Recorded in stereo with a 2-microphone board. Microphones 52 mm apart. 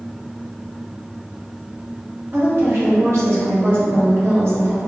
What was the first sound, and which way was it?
A woman speaking, 60° right (ahead or behind).